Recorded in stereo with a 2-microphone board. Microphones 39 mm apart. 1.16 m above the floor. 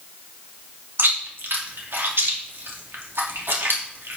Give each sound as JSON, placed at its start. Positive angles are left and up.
{"t": 1.0, "sound": "chewing", "side_deg": -85, "distance_m": 2.5}